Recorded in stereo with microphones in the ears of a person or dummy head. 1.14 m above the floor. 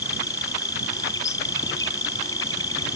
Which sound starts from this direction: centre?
An insect, at 0.0 s.